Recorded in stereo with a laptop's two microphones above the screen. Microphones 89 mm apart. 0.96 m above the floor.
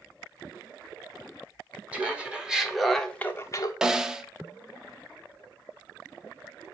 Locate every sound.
1.9 s laughter: 15° right (ahead or behind), 2 m; by 3.7 s 45° left (ahead or behind), 0.8 m
3.8 s a snare drum: 5° right (ahead or behind), 0.5 m